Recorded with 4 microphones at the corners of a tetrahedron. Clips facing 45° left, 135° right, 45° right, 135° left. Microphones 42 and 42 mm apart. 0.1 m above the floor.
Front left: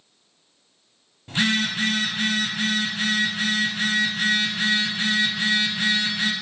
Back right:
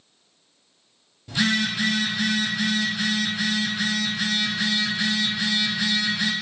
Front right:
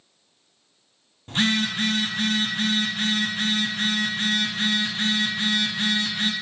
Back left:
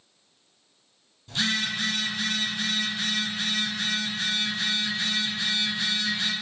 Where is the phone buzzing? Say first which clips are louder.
Even, front right 4 dB; 5° right, 0.7 m.